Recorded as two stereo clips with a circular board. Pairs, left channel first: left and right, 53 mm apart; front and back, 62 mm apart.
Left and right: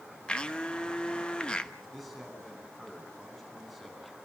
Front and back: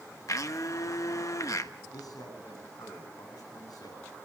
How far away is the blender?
About 1.0 m.